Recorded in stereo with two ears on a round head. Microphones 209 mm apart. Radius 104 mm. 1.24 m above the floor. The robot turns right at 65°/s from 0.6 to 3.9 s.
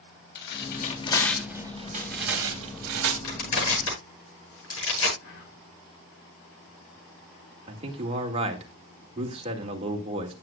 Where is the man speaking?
25° right (ahead or behind), 2 m.